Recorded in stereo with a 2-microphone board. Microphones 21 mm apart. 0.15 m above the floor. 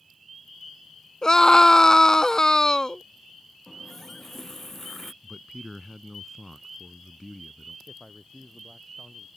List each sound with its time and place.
1.2 s a scream: 30° left (ahead or behind)
3.7 s a running tap: 15° left (ahead or behind)
5.2 s a man speaking: 5° right (ahead or behind)
7.9 s a man speaking: 5° right (ahead or behind)